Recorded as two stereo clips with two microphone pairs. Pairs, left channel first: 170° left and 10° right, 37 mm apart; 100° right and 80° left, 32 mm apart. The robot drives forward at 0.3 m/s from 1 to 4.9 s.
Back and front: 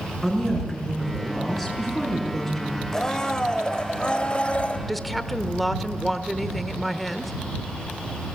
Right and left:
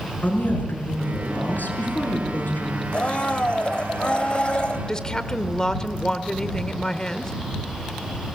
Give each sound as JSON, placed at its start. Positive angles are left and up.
{"t": 0.2, "sound": "a woman speaking", "azimuth_deg": -100, "distance_m": 6.0}
{"t": 2.9, "sound": "a blender", "azimuth_deg": -120, "distance_m": 1.3}
{"t": 4.9, "sound": "a woman speaking", "azimuth_deg": -110, "distance_m": 0.9}